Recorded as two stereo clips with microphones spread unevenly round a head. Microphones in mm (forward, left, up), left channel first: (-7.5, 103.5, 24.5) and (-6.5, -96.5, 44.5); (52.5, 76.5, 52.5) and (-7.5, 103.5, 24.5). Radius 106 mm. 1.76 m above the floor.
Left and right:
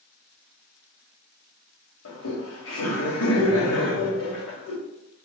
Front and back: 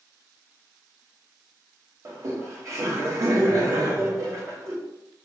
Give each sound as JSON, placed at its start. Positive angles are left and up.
{"t": 2.0, "sound": "laughter", "azimuth_deg": 110, "distance_m": 1.5}